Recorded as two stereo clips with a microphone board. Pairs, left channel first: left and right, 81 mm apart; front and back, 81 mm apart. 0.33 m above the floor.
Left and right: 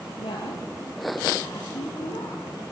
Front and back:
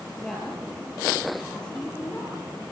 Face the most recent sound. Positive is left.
turn(degrees=75)